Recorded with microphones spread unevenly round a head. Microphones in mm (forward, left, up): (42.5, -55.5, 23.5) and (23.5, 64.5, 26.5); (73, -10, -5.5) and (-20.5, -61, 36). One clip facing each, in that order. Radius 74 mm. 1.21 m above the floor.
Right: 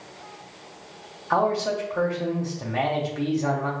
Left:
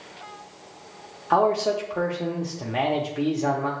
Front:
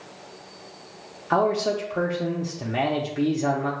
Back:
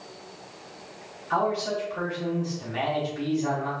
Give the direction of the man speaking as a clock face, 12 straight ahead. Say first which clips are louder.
Left 2 dB, front 4 dB; 11 o'clock.